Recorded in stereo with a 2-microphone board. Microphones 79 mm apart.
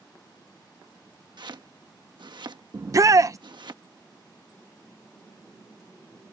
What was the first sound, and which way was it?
Chopping, 70° right (ahead or behind).